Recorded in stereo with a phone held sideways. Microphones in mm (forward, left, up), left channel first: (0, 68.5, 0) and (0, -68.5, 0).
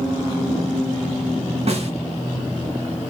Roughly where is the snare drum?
Right.